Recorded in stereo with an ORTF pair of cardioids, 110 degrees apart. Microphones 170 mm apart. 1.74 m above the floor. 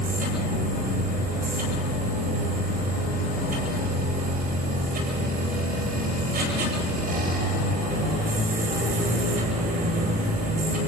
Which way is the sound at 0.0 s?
70° right.